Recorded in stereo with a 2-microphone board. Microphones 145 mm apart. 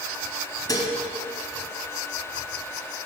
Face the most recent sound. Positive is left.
turn(degrees=25)  # may be behind; listen again after turning